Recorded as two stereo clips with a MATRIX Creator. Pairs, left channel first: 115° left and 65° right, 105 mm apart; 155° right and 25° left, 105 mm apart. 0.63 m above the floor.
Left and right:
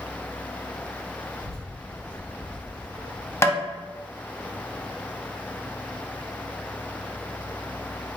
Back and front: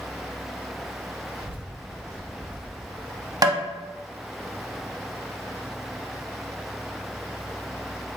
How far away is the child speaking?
About 1.6 m.